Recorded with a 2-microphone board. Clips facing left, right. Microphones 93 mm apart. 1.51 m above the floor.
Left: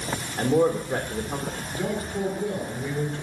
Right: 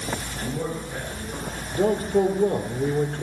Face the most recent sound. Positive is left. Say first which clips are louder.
# right 9 dB
turn(degrees=-45)  # may be behind; listen again after turning